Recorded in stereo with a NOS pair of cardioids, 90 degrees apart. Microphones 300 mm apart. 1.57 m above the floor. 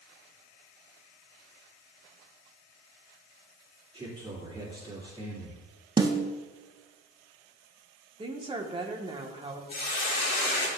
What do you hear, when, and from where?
3.9 s a man speaking: 15° right, 3 m
6.0 s a snare drum: 15° right, 1.1 m
8.2 s a woman speaking: 20° right, 1.8 m
9.7 s a hiss: 40° left, 4 m